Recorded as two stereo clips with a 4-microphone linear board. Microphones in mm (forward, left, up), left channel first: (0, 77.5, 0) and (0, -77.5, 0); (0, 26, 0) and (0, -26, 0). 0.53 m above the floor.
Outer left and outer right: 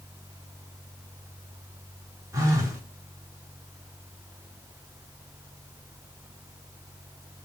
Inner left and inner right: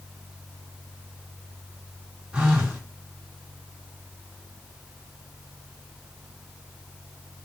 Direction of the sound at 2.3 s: 20° right (ahead or behind).